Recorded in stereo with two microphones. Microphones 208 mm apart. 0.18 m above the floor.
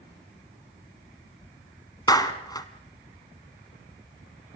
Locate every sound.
2.1 s a clap: 20° left (ahead or behind), 1.6 m